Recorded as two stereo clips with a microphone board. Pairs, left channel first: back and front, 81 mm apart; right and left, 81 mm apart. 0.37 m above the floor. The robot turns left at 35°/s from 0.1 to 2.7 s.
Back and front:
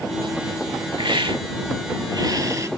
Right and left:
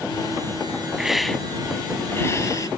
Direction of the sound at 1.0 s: 10° left.